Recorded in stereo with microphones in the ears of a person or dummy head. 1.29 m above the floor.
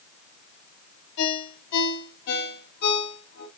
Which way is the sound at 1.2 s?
60° left (ahead or behind).